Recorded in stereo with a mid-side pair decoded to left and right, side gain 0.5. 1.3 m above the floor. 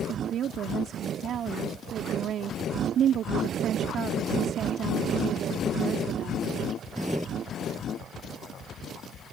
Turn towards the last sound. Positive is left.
turn(degrees=-60)